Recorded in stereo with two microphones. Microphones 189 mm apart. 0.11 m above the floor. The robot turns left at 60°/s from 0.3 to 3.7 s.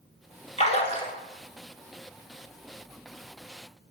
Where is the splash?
95° left, 0.8 m; by 1.1 s 60° left, 0.8 m.